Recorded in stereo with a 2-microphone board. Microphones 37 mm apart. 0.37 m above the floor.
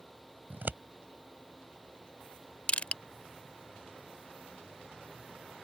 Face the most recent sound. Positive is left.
turn(degrees=40)  # may be behind; listen again after turning